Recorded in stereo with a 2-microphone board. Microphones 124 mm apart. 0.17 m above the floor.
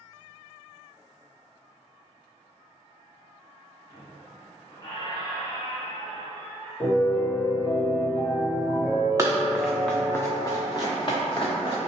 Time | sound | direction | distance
3.9 | a squeak | 40° left (ahead or behind) | 1.1 m
6.8 | a piano | 45° left (ahead or behind) | 1.9 m
9.2 | running footsteps | 25° right (ahead or behind) | 0.6 m